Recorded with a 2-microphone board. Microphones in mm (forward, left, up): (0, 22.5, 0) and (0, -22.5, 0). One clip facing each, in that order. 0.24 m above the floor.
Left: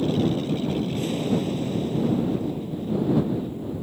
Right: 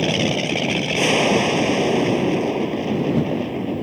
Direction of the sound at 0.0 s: 75° right (ahead or behind).